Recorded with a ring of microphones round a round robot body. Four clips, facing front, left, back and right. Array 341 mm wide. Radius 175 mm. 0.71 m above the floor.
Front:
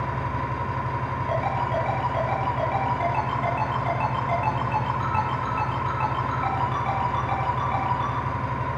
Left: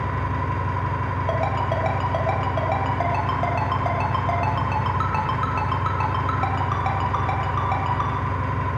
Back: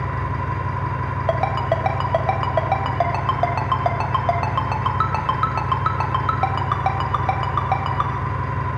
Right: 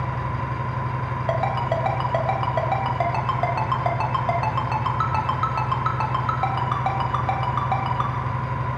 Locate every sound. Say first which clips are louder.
0.0 s an engine running: left 2 dB, back 2 dB; 145° left, 6 m
1.3 s a ringtone: right 1 dB, back 5 dB; 175° right, 1.7 m